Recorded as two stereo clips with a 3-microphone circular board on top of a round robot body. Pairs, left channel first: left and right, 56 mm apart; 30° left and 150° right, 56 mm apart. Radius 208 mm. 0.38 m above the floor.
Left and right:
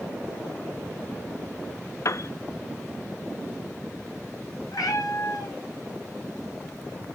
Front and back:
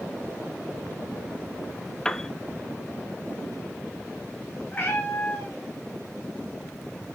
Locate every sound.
2.0 s a piano: 110° left, 0.6 m
4.7 s a cat meowing: 95° left, 0.5 m